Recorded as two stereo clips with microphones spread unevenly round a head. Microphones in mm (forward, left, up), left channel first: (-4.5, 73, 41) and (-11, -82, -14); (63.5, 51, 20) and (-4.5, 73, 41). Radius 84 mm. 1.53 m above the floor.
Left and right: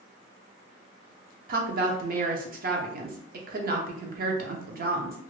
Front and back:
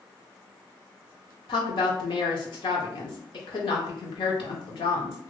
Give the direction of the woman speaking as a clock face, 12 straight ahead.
2 o'clock.